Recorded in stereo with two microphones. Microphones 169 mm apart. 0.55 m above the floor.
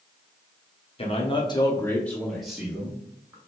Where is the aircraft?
I don't hear an aircraft.